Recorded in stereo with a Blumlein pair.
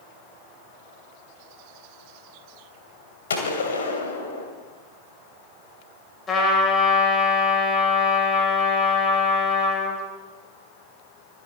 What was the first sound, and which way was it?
A gunshot, 65° left.